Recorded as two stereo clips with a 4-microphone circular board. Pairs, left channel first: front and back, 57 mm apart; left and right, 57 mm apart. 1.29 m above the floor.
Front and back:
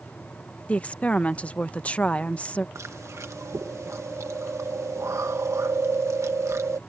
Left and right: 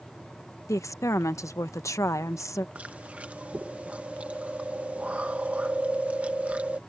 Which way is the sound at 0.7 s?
65° left.